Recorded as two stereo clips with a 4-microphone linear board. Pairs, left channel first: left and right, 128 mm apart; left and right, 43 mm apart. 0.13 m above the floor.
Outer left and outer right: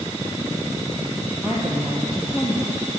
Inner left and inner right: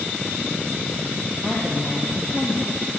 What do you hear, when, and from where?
1.4 s a woman speaking: 5° right (ahead or behind), 3 m